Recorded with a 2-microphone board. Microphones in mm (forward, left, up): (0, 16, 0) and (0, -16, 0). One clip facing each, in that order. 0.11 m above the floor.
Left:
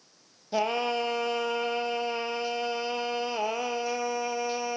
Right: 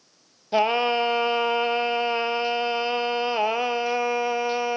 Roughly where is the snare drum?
No snare drum in this recording.